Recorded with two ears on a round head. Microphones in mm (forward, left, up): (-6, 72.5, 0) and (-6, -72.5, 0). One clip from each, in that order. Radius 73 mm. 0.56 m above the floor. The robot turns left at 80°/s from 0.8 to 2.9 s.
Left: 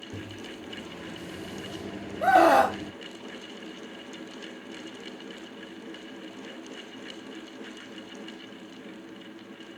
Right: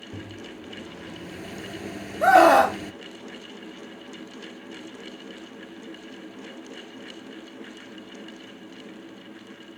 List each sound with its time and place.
0.1 s a microwave: 30° left; by 2.9 s 140° right
2.2 s a scream: 135° right; by 2.8 s straight behind